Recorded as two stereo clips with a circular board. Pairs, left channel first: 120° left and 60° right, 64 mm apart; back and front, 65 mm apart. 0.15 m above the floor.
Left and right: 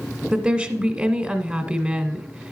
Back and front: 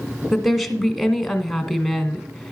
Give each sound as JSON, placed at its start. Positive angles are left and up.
{"t": 0.3, "sound": "a woman speaking", "azimuth_deg": -90, "distance_m": 1.1}